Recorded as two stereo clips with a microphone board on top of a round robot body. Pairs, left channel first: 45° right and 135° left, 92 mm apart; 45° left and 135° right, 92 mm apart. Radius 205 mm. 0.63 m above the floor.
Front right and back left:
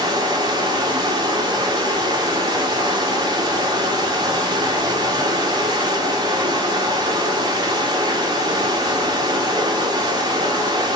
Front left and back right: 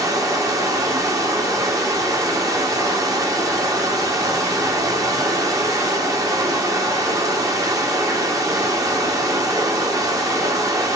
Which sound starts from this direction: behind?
Running water, at 0.0 s.